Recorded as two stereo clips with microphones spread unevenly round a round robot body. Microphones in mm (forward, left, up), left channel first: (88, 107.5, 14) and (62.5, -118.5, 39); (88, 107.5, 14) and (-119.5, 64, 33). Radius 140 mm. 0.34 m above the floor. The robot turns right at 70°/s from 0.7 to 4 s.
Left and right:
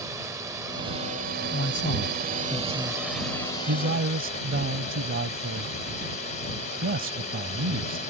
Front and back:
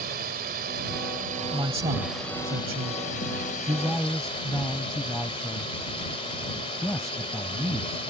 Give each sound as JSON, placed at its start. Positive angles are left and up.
{"t": 0.0, "sound": "a drone", "azimuth_deg": -175}
{"t": 1.5, "sound": "a man speaking", "azimuth_deg": 115}